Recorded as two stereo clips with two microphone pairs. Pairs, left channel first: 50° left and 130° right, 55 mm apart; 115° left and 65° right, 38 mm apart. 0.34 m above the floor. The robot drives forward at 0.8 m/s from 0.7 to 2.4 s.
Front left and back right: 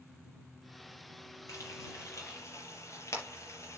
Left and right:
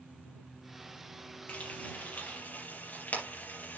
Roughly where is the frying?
Ahead left.